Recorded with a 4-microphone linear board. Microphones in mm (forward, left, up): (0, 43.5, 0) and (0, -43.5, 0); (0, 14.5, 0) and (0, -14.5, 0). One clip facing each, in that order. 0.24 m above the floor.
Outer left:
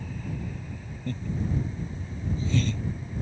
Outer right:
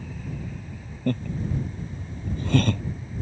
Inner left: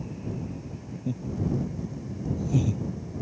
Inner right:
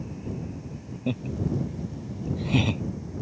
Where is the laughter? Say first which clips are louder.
Outer right 4 dB, inner right 1 dB; 60° right (ahead or behind).